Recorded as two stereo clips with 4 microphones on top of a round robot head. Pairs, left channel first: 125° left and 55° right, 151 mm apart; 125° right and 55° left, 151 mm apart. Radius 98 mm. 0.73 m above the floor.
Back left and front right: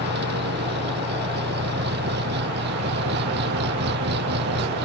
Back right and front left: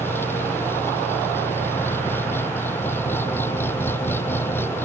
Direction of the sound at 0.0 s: 50° right.